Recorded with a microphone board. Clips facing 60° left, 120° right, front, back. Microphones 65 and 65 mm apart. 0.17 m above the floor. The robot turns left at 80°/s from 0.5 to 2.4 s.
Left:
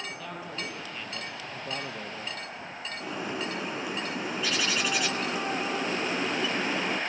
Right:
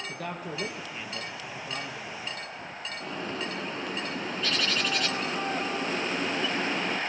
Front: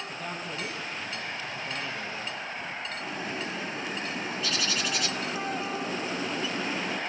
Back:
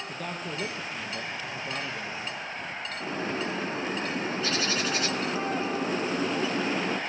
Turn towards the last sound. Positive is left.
turn(degrees=140)